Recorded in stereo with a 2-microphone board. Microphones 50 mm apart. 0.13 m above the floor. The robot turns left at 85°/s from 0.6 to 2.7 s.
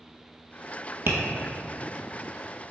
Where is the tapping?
55° right (ahead or behind), 0.8 m; by 1.2 s 45° right (ahead or behind), 0.8 m.